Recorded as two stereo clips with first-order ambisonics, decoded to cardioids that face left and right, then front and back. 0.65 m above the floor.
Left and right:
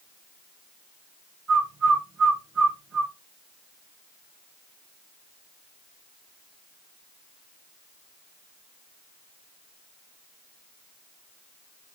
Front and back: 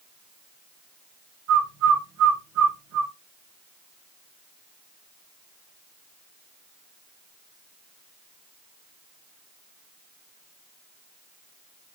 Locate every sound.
1.5 s a bird: 160° right, 4 m